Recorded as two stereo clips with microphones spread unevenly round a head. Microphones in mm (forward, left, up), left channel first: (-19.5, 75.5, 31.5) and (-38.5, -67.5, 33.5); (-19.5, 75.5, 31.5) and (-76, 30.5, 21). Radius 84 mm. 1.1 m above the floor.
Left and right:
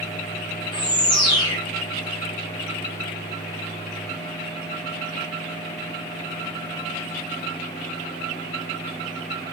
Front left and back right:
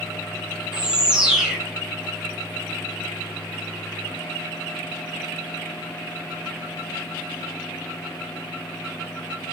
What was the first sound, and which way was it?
A bird, 135° left.